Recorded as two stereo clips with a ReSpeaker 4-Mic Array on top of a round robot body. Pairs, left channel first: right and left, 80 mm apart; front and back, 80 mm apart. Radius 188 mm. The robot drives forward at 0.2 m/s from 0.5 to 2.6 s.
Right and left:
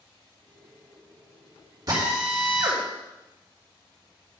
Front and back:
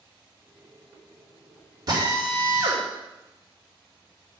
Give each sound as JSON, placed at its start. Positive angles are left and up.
{"t": 1.9, "sound": "a drill", "azimuth_deg": 135, "distance_m": 3.0}